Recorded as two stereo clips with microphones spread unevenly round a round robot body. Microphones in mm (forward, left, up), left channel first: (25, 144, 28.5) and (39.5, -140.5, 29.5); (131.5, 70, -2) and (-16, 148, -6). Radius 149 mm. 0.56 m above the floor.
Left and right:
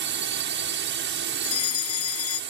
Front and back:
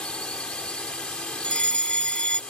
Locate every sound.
0.0 s a drone: 110° right
1.4 s a fire alarm: 55° left